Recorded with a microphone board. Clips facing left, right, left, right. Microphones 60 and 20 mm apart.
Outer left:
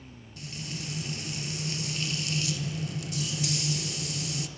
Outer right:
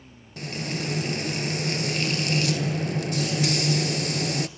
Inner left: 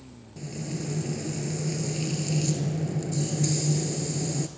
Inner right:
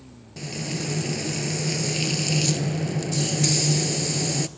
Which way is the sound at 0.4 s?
60° right (ahead or behind).